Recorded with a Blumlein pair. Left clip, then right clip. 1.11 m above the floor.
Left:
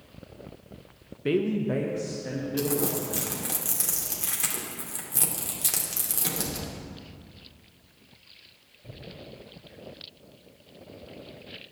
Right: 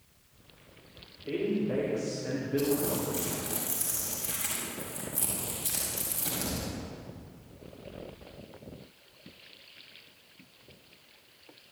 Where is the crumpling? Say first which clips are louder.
Left 2 dB; 35° left, 2.5 m.